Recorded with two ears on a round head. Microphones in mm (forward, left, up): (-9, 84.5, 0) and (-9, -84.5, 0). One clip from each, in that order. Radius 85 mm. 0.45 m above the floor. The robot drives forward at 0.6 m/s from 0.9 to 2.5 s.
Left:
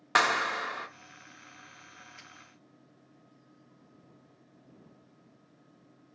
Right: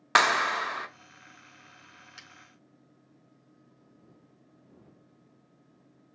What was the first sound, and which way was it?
A clap, 15° right (ahead or behind).